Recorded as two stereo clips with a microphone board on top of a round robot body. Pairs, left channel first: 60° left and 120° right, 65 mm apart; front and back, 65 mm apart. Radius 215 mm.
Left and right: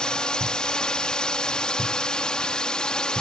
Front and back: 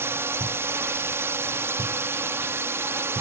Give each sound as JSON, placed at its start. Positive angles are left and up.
{"t": 0.0, "sound": "a drone", "azimuth_deg": 135}